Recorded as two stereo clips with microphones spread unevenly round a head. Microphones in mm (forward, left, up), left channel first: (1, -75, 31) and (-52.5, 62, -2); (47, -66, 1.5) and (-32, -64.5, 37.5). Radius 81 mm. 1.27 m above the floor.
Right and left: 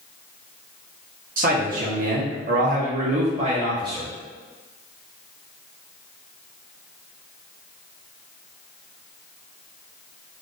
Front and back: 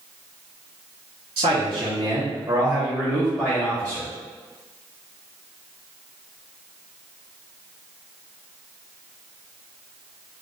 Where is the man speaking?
130° left, 1.2 m; by 4.1 s 45° left, 1.0 m.